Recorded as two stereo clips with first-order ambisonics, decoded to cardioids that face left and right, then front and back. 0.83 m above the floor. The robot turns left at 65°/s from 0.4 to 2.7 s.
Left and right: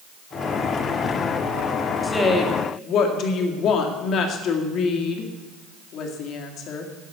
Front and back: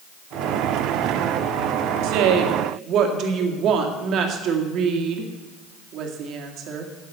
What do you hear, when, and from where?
2.0 s a woman speaking: straight behind, 2 m; by 6.9 s 135° left, 2 m